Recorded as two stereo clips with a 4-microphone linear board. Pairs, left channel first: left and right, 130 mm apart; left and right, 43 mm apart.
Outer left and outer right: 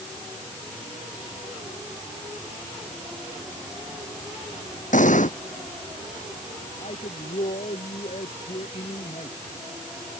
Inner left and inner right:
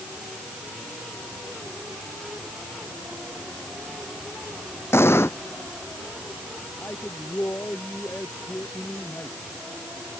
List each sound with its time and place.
4.9 s an explosion: 75° left (ahead or behind)
6.8 s a man speaking: 65° left (ahead or behind)